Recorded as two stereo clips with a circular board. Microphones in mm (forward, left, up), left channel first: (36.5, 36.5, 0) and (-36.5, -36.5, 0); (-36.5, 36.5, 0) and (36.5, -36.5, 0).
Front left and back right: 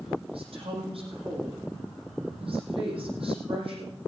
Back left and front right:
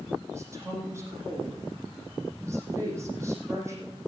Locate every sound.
0.3 s a woman speaking: 110° right, 6.5 m